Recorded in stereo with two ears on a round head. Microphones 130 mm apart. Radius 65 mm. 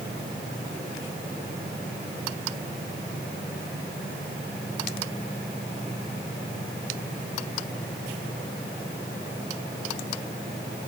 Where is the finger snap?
I don't hear a finger snap.